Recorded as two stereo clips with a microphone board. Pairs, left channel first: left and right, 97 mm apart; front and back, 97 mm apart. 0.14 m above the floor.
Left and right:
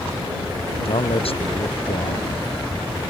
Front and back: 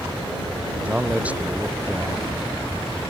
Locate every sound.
0.8 s a man speaking: 105° left